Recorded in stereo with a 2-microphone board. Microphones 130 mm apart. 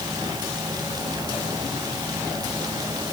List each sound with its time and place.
Only background noise.